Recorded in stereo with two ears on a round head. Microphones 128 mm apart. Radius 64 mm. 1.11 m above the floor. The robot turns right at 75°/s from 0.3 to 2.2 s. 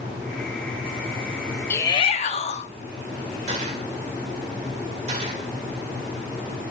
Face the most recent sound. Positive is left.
turn(degrees=-50)  # may be behind; listen again after turning